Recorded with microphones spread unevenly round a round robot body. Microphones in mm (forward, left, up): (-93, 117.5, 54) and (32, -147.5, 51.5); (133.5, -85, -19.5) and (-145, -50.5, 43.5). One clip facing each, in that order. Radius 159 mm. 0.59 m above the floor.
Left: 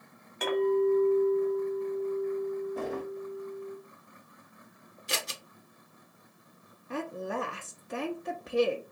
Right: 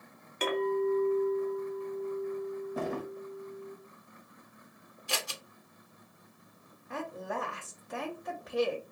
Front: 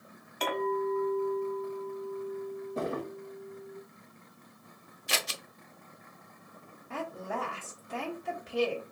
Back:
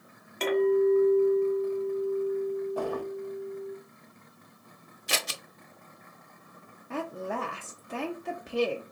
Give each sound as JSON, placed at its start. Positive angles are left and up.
{"t": 0.4, "sound": "a clink", "azimuth_deg": -120, "distance_m": 1.4}
{"t": 2.8, "sound": "a drawer", "azimuth_deg": -70, "distance_m": 0.7}
{"t": 5.1, "sound": "scissors", "azimuth_deg": -175, "distance_m": 0.7}
{"t": 6.9, "sound": "a woman speaking", "azimuth_deg": 150, "distance_m": 0.7}